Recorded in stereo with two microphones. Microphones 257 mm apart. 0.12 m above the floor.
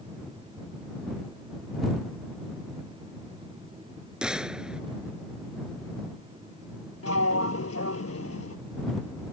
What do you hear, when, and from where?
4.2 s a gunshot: 5° right (ahead or behind)
7.0 s a sliding door: 70° left (ahead or behind)